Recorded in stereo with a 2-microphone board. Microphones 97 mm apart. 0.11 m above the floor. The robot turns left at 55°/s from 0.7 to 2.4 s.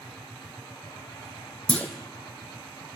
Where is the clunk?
10° left (ahead or behind), 0.7 m; by 1.9 s 20° left (ahead or behind), 0.7 m.